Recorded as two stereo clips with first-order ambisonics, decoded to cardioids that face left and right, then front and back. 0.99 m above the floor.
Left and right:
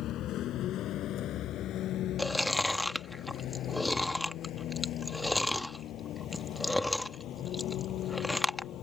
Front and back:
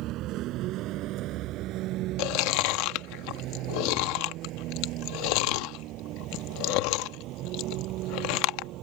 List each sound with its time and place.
0.0 s a vehicle: 140° left
2.2 s chewing: 5° left